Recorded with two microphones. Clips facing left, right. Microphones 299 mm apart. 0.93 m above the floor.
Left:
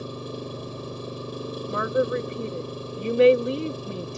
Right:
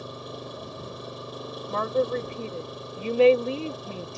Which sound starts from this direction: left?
An engine running, at 0.0 s.